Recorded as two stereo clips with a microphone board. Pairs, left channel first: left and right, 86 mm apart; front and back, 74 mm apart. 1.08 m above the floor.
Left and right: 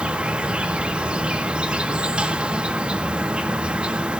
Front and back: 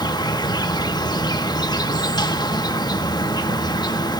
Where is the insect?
15° right, 1.3 m.